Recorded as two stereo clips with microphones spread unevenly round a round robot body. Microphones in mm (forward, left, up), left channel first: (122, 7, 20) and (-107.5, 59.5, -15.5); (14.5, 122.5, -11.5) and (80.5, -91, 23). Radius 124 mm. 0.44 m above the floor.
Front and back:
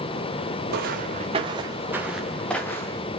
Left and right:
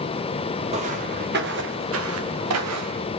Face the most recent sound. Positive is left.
turn(degrees=-90)